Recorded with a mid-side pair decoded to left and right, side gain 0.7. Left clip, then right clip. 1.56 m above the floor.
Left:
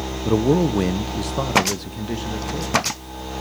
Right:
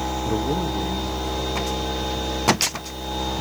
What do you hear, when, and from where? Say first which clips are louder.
0.2 s a man speaking: left 9 dB; 30° left, 0.9 m; by 2.8 s 65° left, 3 m